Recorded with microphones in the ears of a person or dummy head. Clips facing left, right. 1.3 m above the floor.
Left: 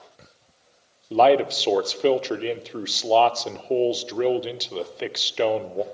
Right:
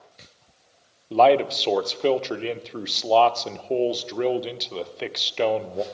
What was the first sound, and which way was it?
A man speaking, 10° left (ahead or behind).